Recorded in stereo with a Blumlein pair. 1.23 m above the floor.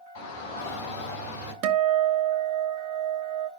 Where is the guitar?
45° right, 0.8 m.